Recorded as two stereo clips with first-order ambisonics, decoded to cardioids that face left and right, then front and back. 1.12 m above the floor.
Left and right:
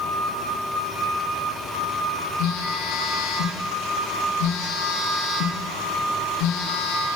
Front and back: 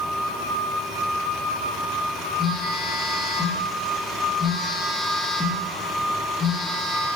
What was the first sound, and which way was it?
A phone buzzing, 75° left.